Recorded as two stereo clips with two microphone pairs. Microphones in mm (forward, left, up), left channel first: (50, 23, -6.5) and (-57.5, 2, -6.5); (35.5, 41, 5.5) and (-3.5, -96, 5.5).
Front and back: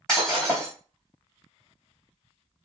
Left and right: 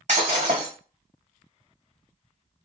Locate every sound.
0.1 s breaking glass: 75° right, 2.5 m